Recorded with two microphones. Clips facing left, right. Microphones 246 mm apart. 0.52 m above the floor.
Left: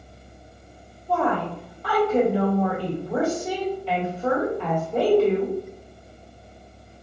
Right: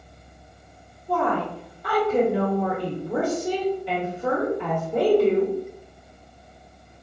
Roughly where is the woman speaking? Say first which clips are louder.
Even; centre.